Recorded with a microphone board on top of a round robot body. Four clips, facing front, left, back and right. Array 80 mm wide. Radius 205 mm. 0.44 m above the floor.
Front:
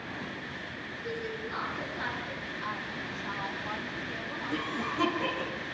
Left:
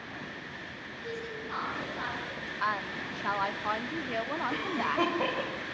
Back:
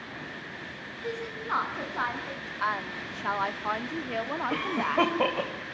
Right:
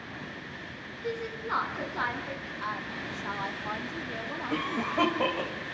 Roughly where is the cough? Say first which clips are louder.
Right 4 dB, back 5 dB; behind.